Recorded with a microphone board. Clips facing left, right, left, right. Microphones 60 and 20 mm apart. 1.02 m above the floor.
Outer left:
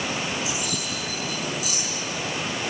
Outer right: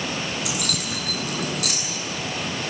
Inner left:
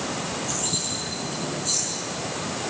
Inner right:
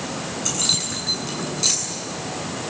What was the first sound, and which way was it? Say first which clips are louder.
Keys jangling: outer right 1 dB, inner right 5 dB; 75° right (ahead or behind).